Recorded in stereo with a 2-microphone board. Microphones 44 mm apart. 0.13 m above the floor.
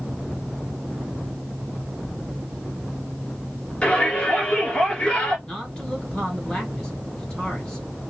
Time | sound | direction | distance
3.8 | a shout | 20° left (ahead or behind) | 1.8 m
5.5 | a man speaking | 20° left (ahead or behind) | 2.5 m